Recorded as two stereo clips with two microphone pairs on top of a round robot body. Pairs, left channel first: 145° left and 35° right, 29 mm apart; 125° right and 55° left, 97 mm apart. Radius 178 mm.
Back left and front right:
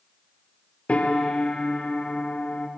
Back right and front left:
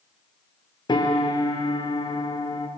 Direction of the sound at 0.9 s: 170° right.